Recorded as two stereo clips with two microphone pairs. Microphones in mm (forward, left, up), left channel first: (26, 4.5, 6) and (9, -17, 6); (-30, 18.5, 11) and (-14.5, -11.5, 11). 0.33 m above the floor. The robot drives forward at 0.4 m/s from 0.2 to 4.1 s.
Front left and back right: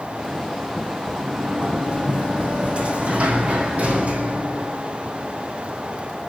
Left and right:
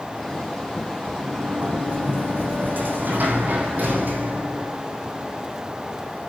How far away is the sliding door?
About 4.5 m.